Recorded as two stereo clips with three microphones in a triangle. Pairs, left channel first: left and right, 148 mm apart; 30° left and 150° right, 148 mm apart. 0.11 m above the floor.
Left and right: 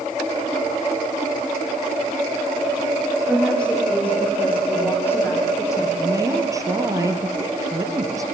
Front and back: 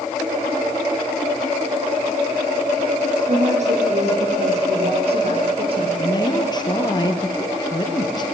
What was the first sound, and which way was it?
A woman speaking, 175° left.